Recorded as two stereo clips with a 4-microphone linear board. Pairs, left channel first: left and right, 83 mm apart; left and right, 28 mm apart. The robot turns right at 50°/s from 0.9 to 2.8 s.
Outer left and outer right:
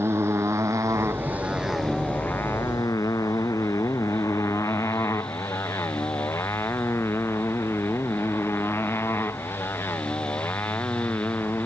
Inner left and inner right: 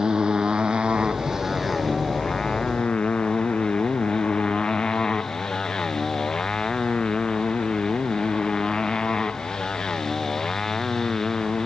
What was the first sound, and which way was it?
A motorcycle, 30° right (ahead or behind).